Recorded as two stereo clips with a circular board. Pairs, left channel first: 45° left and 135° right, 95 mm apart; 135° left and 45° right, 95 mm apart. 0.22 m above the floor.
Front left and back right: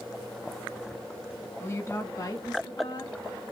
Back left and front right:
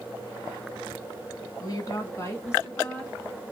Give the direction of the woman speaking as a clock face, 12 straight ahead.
9 o'clock.